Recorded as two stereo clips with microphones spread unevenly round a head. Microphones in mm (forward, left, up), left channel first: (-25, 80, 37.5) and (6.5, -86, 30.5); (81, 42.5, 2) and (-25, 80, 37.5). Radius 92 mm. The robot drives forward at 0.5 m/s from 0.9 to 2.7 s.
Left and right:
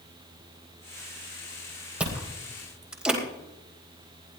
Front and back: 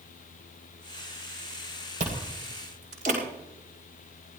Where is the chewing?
165° right, 3.5 m.